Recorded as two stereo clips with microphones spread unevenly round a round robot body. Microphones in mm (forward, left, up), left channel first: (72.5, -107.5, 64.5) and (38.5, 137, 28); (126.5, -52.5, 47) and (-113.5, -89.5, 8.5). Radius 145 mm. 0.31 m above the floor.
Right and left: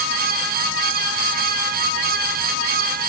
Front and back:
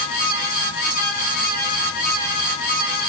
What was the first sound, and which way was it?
Only background noise.